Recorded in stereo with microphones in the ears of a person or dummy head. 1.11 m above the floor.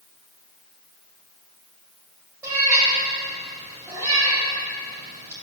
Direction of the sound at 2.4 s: 25° right (ahead or behind).